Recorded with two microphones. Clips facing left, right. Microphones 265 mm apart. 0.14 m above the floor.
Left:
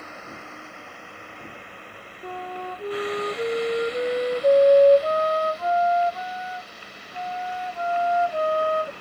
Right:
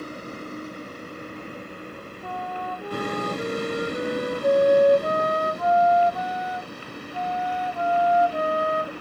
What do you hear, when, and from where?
0.0 s a vehicle: 40° right (ahead or behind); by 9.0 s 60° right (ahead or behind)
2.2 s a flute: 25° left (ahead or behind)